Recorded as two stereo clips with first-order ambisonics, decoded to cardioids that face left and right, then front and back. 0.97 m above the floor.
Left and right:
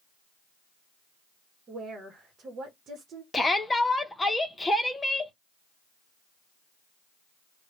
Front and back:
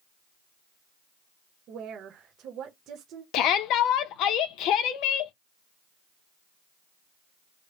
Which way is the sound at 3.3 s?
10° left.